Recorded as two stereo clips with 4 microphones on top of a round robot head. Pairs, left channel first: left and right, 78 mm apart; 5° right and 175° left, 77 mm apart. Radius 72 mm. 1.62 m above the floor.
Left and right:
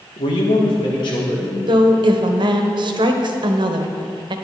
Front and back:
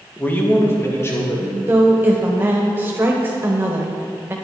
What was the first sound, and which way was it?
A man speaking, 65° left.